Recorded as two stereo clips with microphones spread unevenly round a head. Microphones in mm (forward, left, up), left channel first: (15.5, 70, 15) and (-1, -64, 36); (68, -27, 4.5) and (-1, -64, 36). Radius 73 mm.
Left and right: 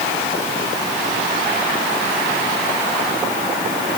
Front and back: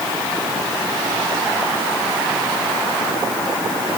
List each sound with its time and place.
Only background noise.